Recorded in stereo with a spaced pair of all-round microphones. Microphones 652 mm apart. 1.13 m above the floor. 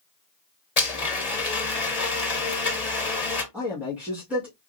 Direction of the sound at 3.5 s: 5° right (ahead or behind).